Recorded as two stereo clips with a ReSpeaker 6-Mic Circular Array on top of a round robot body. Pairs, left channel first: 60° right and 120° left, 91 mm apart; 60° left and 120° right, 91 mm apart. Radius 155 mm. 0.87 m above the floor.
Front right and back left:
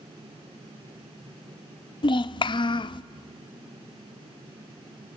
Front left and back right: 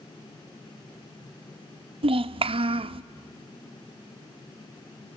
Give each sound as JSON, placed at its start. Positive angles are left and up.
{"t": 2.0, "sound": "a child speaking", "azimuth_deg": -95, "distance_m": 0.5}